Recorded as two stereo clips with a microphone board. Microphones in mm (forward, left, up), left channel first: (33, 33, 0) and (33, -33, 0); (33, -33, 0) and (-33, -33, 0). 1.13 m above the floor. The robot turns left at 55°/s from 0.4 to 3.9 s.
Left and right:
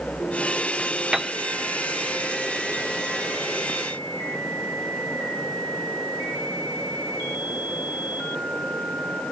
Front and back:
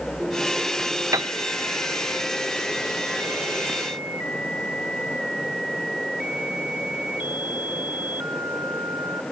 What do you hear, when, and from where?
1.1 s a piano: 170° right; by 1.3 s straight behind